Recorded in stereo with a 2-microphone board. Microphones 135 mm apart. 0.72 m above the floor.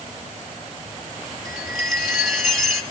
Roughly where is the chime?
Centre.